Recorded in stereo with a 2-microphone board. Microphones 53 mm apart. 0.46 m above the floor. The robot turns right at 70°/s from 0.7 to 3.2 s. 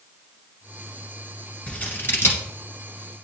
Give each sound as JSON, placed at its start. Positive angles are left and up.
{"t": 1.7, "sound": "scissors", "side_deg": 20, "distance_m": 1.7}